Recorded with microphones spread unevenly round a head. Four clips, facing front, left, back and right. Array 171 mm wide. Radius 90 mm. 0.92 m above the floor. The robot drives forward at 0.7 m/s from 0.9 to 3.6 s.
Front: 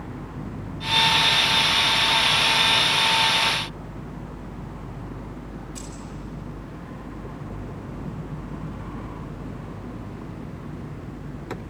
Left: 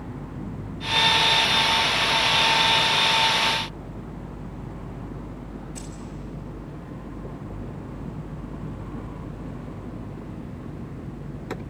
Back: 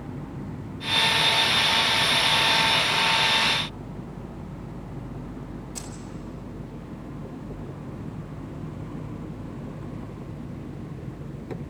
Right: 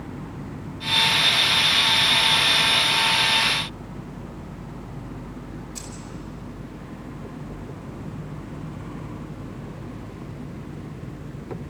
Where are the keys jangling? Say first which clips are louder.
Left 1 dB, front 1 dB; straight behind, 2.5 m.